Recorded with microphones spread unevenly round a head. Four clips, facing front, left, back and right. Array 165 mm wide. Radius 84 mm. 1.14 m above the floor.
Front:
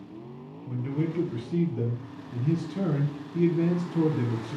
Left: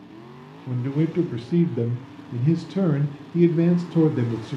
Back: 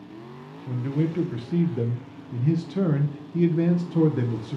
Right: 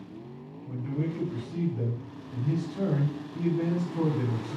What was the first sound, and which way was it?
A man speaking, 110° left.